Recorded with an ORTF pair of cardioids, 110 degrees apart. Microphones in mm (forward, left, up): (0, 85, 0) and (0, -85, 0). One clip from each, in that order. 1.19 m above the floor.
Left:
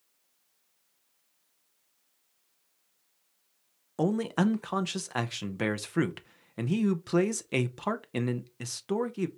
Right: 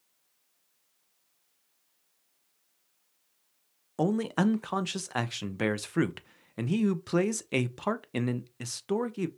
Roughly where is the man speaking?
Ahead.